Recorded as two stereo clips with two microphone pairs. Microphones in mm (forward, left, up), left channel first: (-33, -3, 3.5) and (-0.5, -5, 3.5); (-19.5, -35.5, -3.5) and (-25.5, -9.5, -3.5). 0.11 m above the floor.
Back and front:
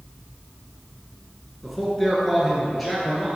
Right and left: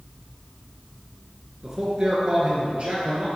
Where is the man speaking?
90° left, 1.7 m; by 3.3 s 95° left, 2.5 m.